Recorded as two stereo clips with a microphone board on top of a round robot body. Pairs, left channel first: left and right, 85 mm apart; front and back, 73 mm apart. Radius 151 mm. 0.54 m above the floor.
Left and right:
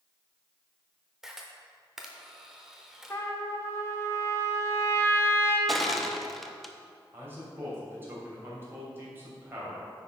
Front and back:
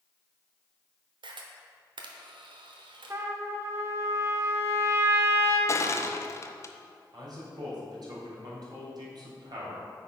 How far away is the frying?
No frying in this recording.